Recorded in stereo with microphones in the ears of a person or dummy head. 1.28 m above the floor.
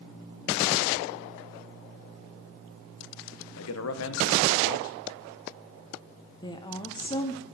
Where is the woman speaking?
20° left (ahead or behind), 0.5 m.